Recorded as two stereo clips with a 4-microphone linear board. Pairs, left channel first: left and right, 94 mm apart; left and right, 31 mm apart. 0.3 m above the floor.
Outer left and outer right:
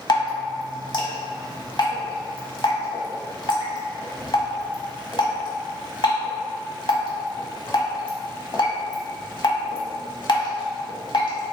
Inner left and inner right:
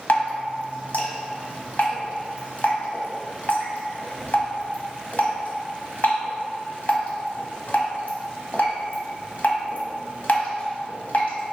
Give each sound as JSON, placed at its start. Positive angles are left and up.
{"t": 0.1, "sound": "dripping", "side_deg": 60, "distance_m": 1.1}